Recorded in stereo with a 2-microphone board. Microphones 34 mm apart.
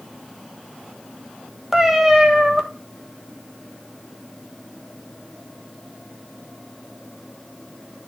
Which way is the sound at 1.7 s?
10° right (ahead or behind).